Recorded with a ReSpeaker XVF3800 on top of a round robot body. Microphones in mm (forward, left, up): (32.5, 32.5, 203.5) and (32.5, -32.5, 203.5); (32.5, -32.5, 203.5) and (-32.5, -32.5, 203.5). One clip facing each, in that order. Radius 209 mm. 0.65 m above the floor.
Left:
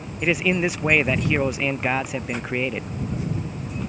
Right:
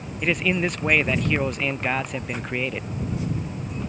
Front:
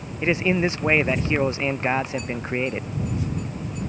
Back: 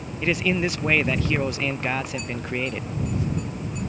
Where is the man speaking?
15° left.